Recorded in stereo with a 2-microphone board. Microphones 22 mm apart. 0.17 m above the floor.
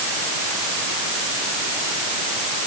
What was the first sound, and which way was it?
Only background noise.